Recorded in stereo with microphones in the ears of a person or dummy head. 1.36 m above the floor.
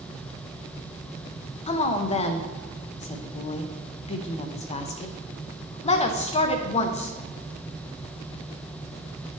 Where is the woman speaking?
35° left (ahead or behind), 0.6 m.